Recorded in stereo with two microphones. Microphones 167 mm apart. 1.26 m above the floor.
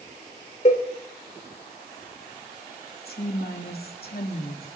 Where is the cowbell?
40° left (ahead or behind), 3 m.